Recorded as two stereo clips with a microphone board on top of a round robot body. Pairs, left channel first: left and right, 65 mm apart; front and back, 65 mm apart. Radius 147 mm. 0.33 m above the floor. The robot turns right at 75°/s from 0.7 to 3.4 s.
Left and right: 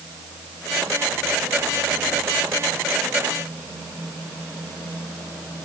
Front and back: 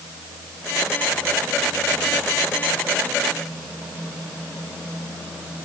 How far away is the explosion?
No explosion in this recording.